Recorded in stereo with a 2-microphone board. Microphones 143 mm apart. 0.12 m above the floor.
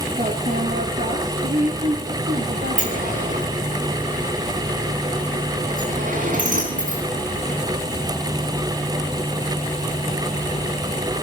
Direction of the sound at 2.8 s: 70° right (ahead or behind).